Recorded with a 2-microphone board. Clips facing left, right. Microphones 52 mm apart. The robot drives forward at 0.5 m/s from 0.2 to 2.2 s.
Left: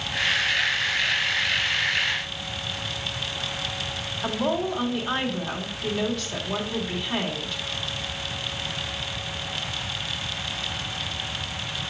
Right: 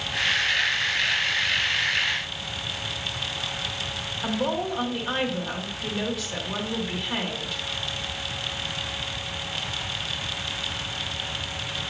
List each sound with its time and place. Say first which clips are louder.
4.2 s a woman speaking: left 1 dB; 5° right (ahead or behind), 2 m